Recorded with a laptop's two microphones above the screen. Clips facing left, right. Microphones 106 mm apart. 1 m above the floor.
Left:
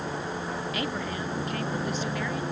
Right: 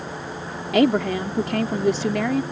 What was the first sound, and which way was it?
A woman speaking, 85° right.